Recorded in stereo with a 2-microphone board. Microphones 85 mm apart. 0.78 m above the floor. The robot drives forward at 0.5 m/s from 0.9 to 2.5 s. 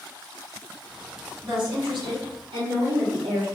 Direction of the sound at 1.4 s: 65° right (ahead or behind).